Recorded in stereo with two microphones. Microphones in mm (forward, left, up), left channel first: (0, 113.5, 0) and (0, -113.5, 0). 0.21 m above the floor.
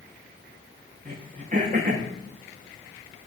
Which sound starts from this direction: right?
Throat clearing, at 1.1 s.